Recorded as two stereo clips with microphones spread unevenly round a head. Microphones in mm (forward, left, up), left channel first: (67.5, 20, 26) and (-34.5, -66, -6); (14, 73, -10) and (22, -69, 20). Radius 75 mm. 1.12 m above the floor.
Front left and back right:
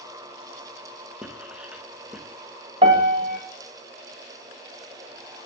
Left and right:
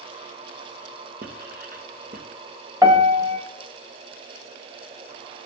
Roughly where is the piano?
Behind.